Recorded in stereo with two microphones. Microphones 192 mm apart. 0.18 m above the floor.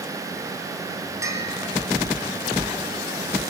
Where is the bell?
15° right (ahead or behind), 2.5 m.